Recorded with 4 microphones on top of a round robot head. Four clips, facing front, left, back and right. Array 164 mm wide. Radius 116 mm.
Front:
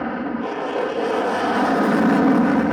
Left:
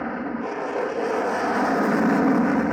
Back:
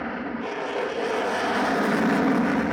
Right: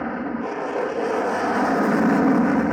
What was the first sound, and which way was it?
An aircraft, straight ahead.